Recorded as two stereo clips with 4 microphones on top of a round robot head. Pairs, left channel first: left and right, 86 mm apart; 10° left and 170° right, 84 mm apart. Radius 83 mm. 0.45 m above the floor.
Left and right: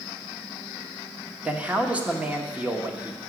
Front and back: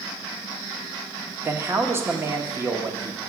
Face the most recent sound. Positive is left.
turn(degrees=-150)